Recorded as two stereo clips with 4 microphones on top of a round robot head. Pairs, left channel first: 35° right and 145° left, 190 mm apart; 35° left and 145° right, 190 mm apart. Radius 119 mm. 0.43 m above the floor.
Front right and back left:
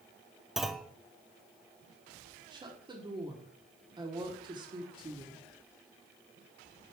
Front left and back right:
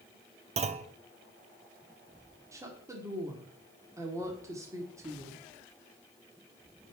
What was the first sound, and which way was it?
A clunk, 130° right.